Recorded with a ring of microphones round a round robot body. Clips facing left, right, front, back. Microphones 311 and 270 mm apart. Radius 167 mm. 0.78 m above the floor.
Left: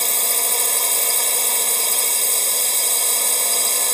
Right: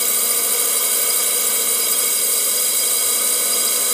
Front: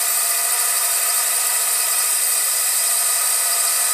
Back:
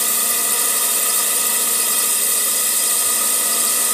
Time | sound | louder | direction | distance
0.0 | a drone | right 1 dB, back 5 dB | 160° right | ?